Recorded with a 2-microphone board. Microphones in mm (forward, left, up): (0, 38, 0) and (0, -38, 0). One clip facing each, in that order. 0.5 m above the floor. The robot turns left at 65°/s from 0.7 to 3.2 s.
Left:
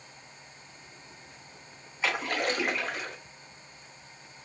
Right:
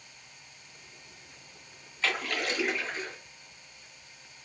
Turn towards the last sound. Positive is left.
turn(degrees=90)